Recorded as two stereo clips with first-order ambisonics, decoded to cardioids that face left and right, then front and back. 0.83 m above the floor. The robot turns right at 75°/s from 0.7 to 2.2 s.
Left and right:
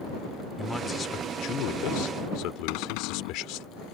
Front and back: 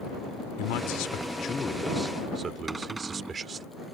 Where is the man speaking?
Straight ahead; by 3.7 s 115° left.